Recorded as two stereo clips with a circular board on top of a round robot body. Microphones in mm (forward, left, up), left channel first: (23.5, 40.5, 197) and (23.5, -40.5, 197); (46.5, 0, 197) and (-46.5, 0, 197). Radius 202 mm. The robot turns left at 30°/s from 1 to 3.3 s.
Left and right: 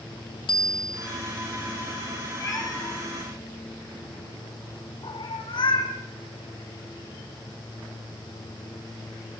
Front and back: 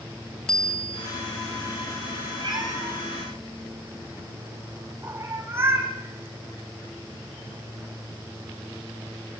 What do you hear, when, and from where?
0.5 s a bicycle bell: 85° left, 3 m; by 1.1 s 80° left, 3 m
2.4 s a cat meowing: 140° left, 3.5 m; by 5.9 s 115° left, 3.5 m